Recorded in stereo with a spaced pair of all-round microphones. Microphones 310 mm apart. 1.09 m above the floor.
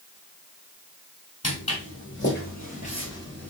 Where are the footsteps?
50° left (ahead or behind), 1.8 m; by 3.5 s 5° left (ahead or behind), 1.3 m.